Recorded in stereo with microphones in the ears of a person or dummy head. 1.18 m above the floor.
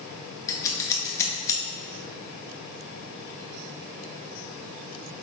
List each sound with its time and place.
0.5 s scissors: 15° left (ahead or behind), 1.4 m